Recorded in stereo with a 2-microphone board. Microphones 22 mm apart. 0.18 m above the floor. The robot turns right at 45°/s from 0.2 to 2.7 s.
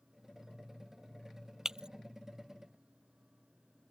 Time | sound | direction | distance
1.6 | breaking glass | 30° right (ahead or behind) | ?